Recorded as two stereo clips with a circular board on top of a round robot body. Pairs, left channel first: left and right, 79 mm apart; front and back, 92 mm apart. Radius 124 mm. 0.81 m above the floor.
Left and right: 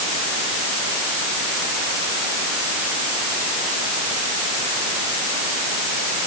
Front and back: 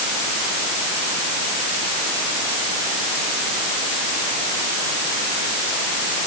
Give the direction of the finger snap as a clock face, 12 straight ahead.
I don't hear a finger snap.